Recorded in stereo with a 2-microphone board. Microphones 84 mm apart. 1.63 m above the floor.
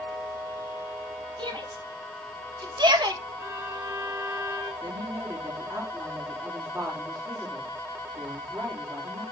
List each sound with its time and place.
1.4 s a shout: 65° right (ahead or behind), 2.5 m; by 3.2 s 55° right (ahead or behind), 1.6 m
3.4 s a violin: 30° right (ahead or behind), 5.5 m
4.8 s a woman speaking: 35° right (ahead or behind), 4 m